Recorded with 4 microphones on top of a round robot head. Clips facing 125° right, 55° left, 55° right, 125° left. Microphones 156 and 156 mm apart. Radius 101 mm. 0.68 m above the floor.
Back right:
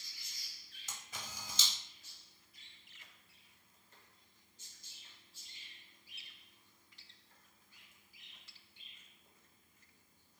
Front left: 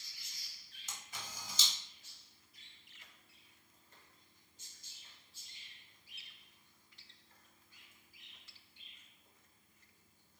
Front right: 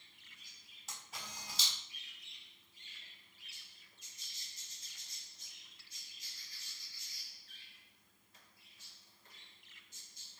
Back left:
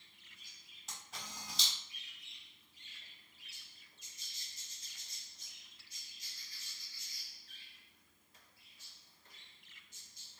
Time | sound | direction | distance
0.9 | a camera shutter | 145° right | 0.9 m